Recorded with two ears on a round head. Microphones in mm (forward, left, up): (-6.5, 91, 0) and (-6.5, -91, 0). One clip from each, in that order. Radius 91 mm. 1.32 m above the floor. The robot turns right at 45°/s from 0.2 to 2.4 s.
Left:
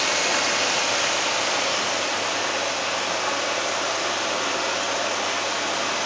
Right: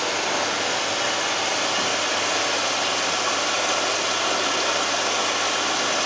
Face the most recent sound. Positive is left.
turn(degrees=-165)